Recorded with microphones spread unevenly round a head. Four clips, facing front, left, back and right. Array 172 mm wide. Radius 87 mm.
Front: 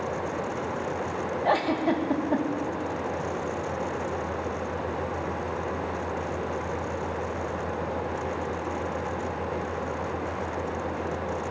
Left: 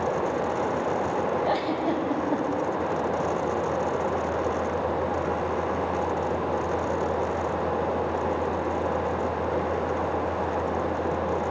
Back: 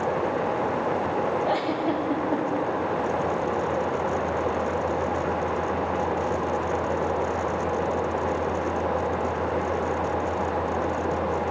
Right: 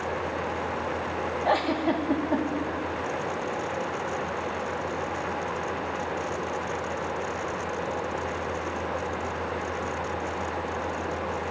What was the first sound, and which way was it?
A giggle, 20° right.